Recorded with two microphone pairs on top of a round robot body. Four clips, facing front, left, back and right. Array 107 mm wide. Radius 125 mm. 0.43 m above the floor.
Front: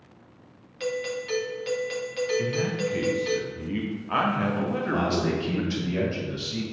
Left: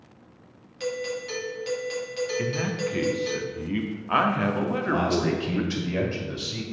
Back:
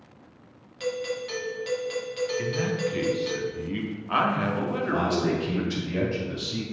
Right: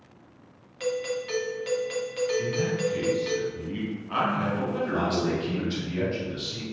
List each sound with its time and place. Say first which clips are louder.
0.8 s a doorbell: right 1 dB, even; 70° right, 1.8 m
2.4 s a man speaking: right 1 dB, even; 100° left, 1.1 m
4.8 s a man speaking: left 2 dB, back 2 dB; 90° left, 2 m